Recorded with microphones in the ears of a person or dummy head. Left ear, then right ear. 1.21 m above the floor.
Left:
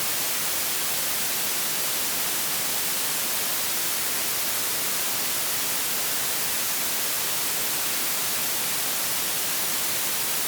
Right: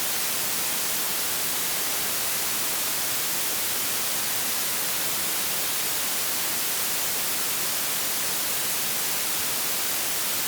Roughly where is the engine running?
No engine running in this recording.